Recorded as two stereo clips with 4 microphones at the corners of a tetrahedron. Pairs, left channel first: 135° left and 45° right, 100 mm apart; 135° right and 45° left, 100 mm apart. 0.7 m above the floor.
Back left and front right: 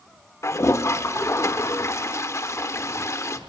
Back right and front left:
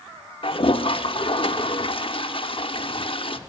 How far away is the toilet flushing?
About 0.8 m.